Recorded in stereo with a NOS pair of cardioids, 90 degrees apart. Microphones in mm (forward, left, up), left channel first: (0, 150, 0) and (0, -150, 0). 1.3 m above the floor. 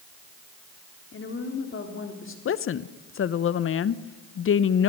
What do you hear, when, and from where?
1.1 s a woman speaking: 45° left, 3.5 m
2.5 s a woman speaking: 45° left, 0.7 m